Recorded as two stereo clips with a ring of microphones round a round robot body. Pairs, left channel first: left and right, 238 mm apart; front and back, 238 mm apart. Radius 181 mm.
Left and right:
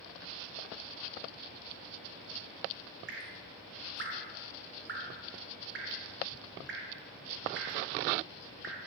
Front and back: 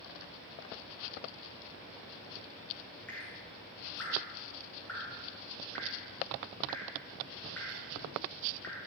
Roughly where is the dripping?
Right.